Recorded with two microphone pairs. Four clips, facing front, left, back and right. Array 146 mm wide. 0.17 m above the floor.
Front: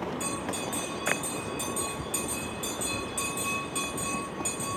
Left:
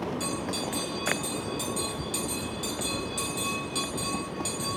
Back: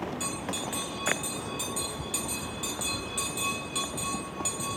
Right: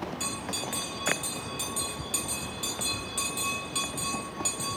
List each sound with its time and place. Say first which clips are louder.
0.2 s a bell: left 4 dB, front 1 dB; 100° right, 2 m